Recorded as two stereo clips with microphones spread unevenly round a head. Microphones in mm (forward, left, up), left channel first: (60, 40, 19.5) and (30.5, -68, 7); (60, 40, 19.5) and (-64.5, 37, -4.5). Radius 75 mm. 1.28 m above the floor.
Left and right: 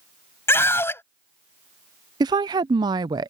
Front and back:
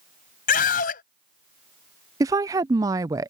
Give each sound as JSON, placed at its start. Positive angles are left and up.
{"t": 0.5, "sound": "a scream", "azimuth_deg": 5}
{"t": 2.2, "sound": "a woman speaking", "azimuth_deg": -135}